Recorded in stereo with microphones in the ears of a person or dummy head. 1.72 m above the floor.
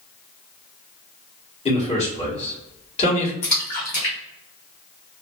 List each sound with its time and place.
1.6 s a man speaking: 30° left (ahead or behind), 1.8 m
3.4 s a splash: 40° left (ahead or behind), 1.4 m